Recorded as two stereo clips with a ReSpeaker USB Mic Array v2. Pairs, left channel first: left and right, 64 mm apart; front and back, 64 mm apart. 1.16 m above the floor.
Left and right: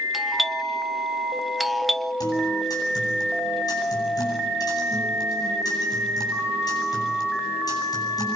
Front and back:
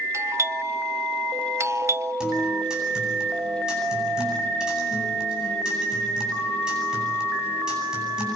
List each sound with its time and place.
0.1 s a doorbell: straight behind, 0.6 m
2.2 s a guitar: 100° left, 9.5 m